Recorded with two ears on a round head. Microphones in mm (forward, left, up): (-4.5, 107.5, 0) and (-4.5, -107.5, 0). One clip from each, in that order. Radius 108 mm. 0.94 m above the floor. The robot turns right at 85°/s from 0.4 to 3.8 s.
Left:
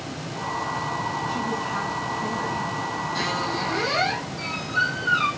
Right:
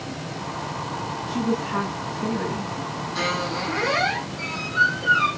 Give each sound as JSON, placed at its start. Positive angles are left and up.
{"t": 1.3, "sound": "a woman speaking", "azimuth_deg": -155, "distance_m": 6.5}
{"t": 3.1, "sound": "a squeak", "azimuth_deg": 10, "distance_m": 5.5}